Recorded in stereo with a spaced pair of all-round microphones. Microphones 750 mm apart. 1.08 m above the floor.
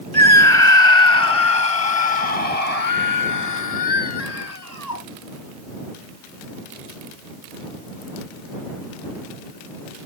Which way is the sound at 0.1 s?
45° left (ahead or behind).